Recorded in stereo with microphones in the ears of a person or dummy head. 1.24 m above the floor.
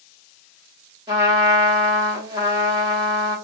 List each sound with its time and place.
1.1 s a trumpet: 25° right (ahead or behind), 1.9 m